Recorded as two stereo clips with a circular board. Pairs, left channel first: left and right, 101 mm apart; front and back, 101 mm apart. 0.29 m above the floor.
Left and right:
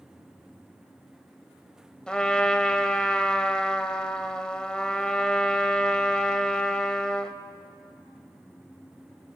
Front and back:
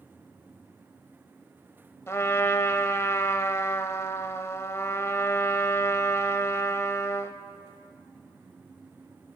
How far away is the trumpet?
About 1.1 m.